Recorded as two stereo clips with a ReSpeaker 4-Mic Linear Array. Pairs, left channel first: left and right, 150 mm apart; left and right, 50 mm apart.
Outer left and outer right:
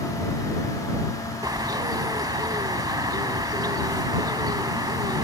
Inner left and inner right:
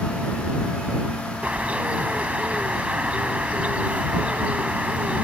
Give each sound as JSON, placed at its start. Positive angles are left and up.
{"t": 1.4, "sound": "a bird", "side_deg": -25}